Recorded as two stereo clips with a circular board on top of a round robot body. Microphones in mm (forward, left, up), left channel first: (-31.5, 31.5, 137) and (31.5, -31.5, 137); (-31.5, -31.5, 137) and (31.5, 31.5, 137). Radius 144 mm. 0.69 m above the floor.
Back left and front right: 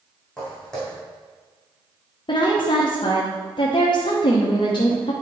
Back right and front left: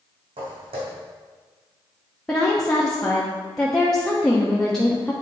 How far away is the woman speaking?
About 1.2 m.